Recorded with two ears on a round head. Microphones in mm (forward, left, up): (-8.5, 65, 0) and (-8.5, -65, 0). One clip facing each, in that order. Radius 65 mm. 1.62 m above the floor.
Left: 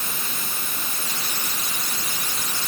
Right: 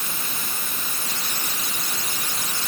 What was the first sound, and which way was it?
Only background noise.